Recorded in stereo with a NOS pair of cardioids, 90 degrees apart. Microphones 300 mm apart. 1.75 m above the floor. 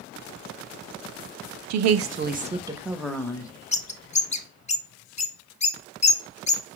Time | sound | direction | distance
1.7 | a woman speaking | 70° right | 0.6 m
3.7 | a bird | 25° left | 0.7 m